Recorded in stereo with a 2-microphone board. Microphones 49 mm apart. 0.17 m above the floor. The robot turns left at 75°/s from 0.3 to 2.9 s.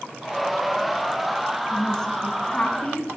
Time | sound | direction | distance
1.7 | a woman speaking | 5° left (ahead or behind) | 1.0 m